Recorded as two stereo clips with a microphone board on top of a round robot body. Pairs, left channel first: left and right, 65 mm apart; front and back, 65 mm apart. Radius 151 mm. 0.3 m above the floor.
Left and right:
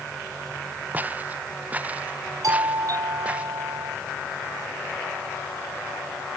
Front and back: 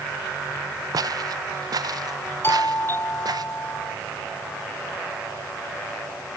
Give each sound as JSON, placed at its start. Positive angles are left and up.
{"t": 0.9, "sound": "footsteps", "azimuth_deg": -155}
{"t": 2.4, "sound": "a doorbell", "azimuth_deg": -55}